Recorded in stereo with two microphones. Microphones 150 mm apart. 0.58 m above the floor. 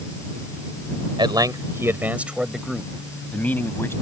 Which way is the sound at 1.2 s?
35° right (ahead or behind).